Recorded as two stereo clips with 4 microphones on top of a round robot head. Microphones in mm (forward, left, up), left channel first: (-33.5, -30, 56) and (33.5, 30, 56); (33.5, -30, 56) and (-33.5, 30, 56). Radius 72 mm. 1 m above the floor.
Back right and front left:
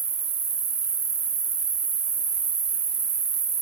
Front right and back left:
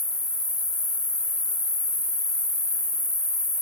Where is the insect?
20° left, 1.1 m.